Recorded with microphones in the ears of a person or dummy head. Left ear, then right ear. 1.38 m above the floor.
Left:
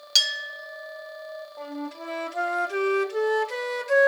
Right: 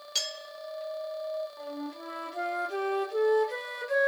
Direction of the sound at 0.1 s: 45° left (ahead or behind).